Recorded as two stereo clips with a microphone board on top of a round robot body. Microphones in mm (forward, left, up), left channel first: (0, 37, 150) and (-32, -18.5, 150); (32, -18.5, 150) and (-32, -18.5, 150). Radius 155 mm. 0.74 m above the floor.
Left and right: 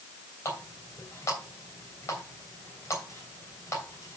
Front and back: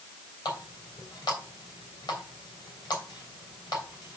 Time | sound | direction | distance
0.5 | a running tap | 10° left | 3 m